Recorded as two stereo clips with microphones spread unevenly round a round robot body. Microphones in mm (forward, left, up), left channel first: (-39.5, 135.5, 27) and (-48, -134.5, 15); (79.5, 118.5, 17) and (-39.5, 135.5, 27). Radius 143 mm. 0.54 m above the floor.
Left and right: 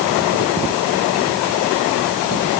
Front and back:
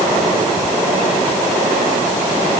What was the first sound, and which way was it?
Only background noise.